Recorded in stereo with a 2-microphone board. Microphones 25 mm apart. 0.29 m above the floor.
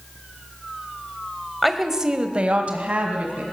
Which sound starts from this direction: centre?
A woman speaking, at 1.6 s.